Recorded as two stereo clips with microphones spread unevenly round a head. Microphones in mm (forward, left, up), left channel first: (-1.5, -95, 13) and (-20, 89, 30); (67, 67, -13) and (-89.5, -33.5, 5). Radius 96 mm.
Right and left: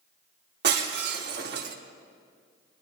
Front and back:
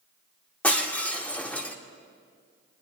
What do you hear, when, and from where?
0.6 s breaking glass: 120° left, 1.4 m